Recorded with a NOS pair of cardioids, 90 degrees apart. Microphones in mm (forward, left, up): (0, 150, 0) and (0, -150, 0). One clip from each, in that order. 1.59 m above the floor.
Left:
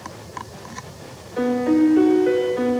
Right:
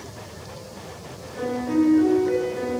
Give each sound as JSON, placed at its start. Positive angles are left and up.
{"t": 1.4, "sound": "a piano", "azimuth_deg": 70, "distance_m": 0.7}